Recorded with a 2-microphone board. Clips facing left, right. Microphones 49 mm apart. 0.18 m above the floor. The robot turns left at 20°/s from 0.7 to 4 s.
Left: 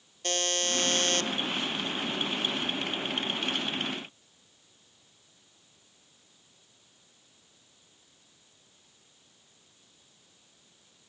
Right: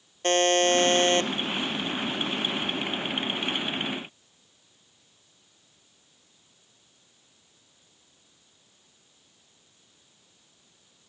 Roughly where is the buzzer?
Right.